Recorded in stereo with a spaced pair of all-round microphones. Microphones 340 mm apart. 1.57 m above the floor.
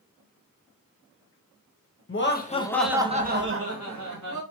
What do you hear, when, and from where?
2.1 s laughter: 40° left (ahead or behind), 0.6 m; by 4.4 s 60° right (ahead or behind), 1.0 m